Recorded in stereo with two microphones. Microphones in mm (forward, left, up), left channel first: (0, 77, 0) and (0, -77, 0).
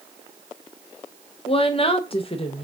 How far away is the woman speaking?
About 0.5 m.